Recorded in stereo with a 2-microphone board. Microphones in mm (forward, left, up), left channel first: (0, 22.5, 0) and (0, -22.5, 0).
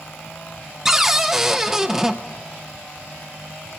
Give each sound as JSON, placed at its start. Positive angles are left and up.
{"t": 0.8, "sound": "a cupboard door", "side_deg": -5, "distance_m": 0.6}